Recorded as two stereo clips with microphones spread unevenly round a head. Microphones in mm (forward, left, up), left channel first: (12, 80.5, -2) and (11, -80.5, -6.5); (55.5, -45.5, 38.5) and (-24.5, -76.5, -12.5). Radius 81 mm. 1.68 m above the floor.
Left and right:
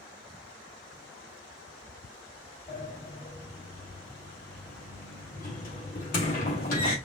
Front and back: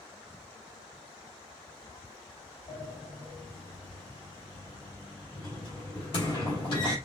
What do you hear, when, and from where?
2.7 s a sliding door: 55° left, 2.5 m